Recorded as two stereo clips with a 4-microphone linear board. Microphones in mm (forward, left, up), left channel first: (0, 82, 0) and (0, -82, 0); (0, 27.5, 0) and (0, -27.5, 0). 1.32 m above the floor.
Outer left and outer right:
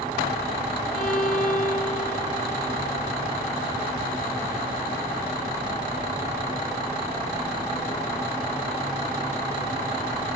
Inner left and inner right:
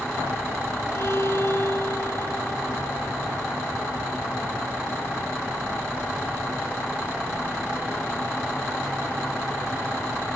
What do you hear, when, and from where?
0.9 s a violin: 50° left (ahead or behind), 1.9 m